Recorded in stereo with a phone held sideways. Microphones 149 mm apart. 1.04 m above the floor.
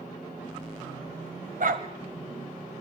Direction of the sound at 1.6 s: 70° right (ahead or behind).